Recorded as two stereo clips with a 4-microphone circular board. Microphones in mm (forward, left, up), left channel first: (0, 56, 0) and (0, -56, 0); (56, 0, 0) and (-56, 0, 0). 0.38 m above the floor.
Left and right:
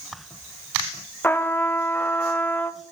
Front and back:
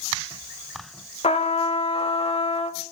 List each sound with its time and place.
1.2 s a trumpet: 20° left, 0.6 m